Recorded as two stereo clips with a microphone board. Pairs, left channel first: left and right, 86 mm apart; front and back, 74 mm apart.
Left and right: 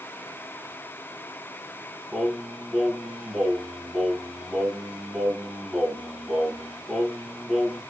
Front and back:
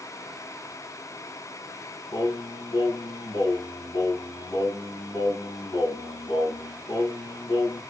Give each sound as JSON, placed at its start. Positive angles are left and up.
{"t": 2.1, "sound": "singing", "azimuth_deg": 0, "distance_m": 1.2}